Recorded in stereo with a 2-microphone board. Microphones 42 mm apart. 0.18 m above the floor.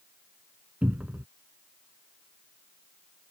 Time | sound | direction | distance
0.8 | a cupboard door | 40° right (ahead or behind) | ?